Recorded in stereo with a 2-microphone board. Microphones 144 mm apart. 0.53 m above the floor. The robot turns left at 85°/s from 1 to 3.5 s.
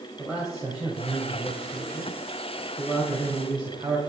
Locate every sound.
0.2 s a man speaking: 175° right, 2 m; by 4.0 s 30° right, 2 m